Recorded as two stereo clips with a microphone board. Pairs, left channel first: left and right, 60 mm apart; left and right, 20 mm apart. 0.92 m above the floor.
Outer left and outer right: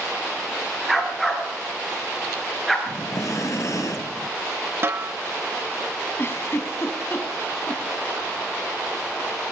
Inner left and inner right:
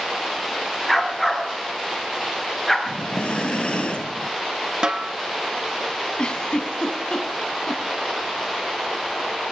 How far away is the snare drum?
About 0.7 m.